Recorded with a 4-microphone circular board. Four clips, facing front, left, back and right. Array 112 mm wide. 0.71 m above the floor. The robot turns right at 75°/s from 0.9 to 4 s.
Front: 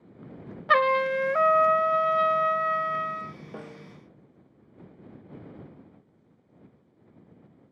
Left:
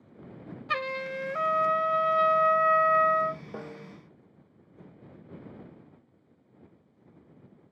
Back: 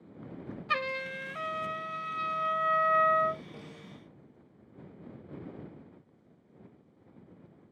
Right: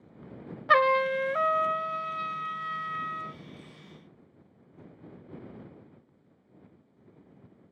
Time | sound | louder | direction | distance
0.7 | a trumpet | right 10 dB, front 13 dB | 50° right | ?
3.5 | a snare drum | left 9 dB, front 6 dB | 60° left | ?